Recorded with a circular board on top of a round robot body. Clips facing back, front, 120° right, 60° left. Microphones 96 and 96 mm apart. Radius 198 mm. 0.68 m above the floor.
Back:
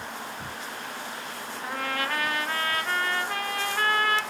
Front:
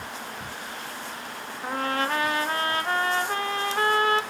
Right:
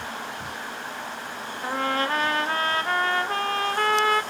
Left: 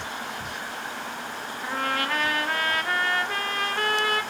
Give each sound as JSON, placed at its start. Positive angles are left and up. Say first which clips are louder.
{"t": 1.6, "sound": "a trumpet", "louder": "front 4 dB, right 3 dB", "azimuth_deg": -65, "distance_m": 1.0}